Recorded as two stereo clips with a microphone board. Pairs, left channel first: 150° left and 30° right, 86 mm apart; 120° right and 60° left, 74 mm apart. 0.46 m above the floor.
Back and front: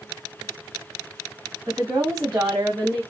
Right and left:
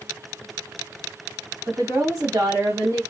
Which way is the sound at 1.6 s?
25° left.